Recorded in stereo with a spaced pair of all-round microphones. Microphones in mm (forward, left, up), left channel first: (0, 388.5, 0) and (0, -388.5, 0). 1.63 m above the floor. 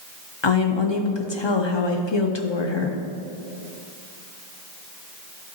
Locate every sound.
0.4 s a woman speaking: 35° left (ahead or behind), 0.9 m